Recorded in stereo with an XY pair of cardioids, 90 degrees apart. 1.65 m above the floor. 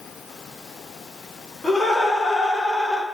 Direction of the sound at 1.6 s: 25° left.